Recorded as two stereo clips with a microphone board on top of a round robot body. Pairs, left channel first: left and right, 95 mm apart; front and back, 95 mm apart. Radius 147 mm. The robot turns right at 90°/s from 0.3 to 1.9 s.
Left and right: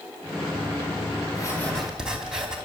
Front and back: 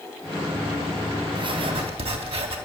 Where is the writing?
135° left, 3.5 m; by 2.6 s 175° right, 3.5 m.